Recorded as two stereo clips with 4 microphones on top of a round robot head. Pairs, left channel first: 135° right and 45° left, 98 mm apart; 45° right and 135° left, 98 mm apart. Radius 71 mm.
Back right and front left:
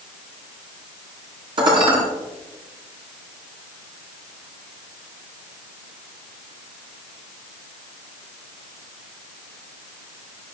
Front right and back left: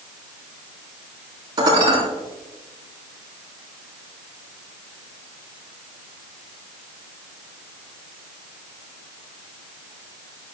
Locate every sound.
1.6 s dishes clattering: 85° left, 8 m